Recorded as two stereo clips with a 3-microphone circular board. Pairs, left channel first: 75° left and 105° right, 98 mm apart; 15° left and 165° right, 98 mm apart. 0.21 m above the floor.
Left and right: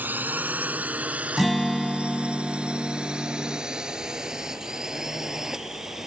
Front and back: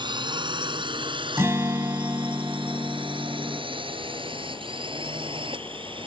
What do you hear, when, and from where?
0.0 s a drone: 170° right; by 6.1 s 170° left
1.4 s a guitar: 165° left